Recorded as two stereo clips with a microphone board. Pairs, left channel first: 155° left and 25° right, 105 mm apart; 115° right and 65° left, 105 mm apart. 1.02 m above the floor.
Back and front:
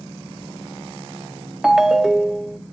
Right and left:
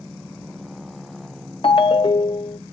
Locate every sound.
1.6 s a ringtone: 105° right, 0.7 m